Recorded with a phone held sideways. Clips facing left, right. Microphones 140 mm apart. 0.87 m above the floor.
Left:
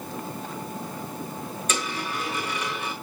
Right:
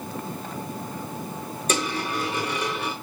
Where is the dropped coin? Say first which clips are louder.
Right 5 dB; 35° right (ahead or behind), 4 m.